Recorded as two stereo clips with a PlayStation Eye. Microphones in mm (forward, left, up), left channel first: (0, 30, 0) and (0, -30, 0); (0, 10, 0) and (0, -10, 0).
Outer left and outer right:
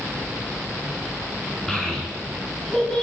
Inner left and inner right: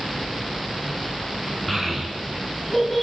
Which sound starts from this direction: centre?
A child speaking, at 1.7 s.